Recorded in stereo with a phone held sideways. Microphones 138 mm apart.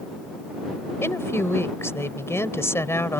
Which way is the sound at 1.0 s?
15° left (ahead or behind).